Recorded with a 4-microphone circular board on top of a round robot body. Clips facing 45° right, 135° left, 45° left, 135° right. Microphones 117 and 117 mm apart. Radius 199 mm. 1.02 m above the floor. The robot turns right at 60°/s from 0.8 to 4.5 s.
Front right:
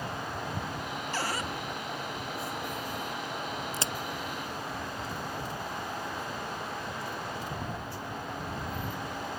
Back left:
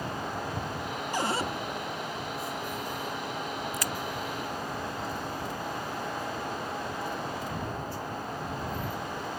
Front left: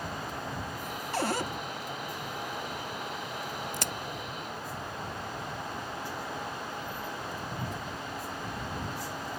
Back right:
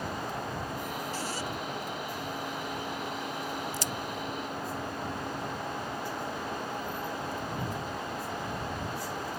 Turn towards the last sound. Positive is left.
turn(degrees=60)